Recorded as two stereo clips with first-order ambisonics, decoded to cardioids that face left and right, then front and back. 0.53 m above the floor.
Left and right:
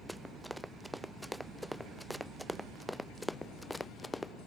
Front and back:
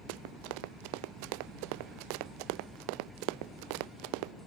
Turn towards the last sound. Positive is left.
turn(degrees=170)